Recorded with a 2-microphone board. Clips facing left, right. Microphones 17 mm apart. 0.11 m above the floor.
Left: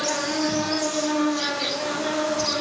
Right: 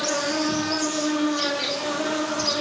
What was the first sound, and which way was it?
An insect, 35° right (ahead or behind).